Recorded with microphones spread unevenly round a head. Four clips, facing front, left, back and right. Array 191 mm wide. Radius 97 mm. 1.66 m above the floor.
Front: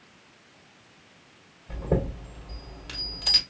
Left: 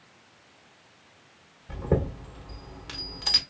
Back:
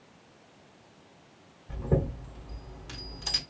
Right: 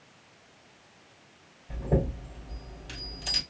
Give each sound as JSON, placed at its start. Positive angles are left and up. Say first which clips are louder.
{"t": 1.7, "sound": "a chime", "louder": "left 1 dB, front 2 dB", "azimuth_deg": 55, "distance_m": 1.7}